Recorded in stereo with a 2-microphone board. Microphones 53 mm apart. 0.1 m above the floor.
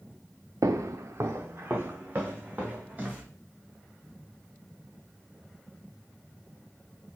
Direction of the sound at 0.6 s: 85° right.